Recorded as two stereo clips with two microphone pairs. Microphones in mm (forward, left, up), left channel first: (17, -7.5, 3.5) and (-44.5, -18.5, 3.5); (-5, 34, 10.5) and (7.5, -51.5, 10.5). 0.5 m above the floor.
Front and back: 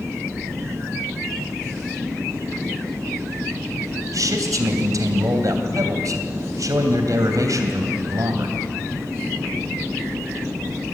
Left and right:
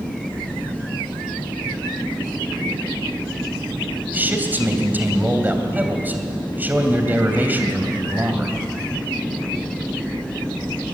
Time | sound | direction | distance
4.1 | a man speaking | 150° right | 3 m